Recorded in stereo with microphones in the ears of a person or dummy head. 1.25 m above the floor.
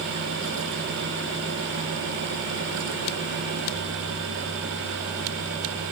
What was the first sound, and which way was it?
Only background noise.